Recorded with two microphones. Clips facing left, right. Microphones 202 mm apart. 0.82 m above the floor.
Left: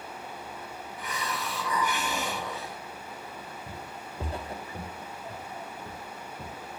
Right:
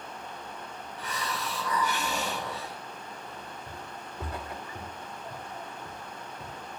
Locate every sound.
1.0 s a hiss: 15° left (ahead or behind), 4 m
3.7 s footsteps: 20° left (ahead or behind), 1.6 m; by 6.6 s 40° left (ahead or behind), 5.5 m